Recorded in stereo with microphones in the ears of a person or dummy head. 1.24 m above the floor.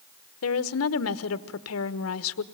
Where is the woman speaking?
75° left (ahead or behind), 1.1 m.